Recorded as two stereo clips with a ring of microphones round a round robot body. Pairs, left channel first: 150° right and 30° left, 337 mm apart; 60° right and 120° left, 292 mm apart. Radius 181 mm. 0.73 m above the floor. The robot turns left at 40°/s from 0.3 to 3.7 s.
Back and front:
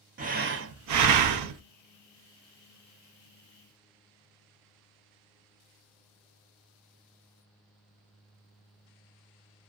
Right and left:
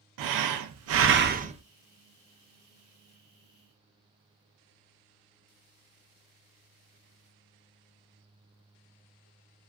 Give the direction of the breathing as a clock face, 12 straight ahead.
9 o'clock.